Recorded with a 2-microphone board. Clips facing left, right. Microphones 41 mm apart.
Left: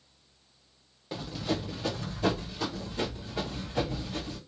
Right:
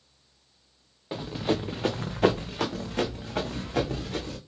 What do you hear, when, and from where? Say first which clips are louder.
1.1 s running footsteps: right 4 dB; 20° right (ahead or behind), 0.8 m; by 4.4 s 85° right, 2.0 m